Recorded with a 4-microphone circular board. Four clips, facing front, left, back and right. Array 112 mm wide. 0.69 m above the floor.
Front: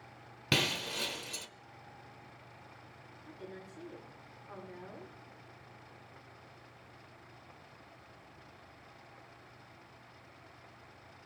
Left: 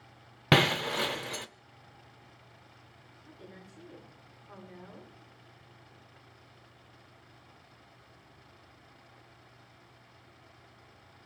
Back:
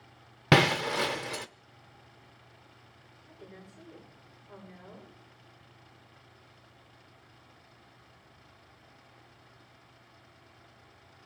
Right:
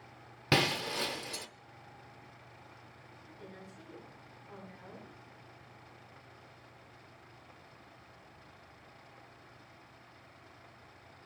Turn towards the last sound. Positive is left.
turn(degrees=20)